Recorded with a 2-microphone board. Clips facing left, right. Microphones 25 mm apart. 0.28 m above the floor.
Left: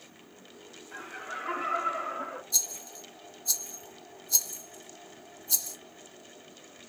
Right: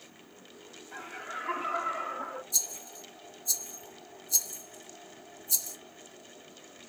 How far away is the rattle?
About 1.2 m.